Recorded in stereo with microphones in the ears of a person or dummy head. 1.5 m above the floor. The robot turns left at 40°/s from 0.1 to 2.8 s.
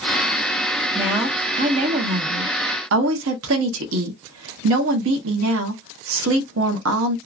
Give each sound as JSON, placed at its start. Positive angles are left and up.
{"t": 0.9, "sound": "a woman speaking", "azimuth_deg": -5, "distance_m": 0.8}